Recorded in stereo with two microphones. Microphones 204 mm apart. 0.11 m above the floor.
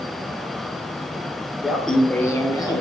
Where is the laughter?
5° right (ahead or behind), 1.5 m; by 2.8 s 20° left (ahead or behind), 2.5 m.